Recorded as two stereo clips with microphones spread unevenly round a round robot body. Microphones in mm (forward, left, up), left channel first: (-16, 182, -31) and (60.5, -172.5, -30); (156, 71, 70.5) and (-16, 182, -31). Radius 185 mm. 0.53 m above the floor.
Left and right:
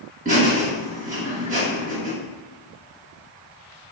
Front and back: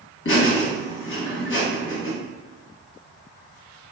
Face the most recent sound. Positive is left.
turn(degrees=-35)